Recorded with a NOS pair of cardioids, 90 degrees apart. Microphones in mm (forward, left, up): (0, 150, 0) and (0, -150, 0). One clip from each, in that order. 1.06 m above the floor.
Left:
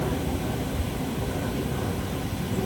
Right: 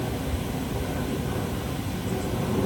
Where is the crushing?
No crushing in this recording.